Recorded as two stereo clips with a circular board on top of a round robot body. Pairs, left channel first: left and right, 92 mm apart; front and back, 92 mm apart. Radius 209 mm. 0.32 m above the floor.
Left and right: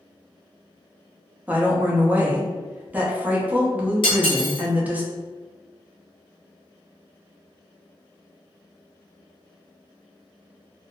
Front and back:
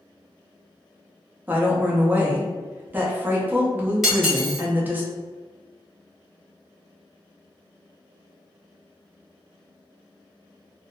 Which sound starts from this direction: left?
Cutlery clinking, at 4.0 s.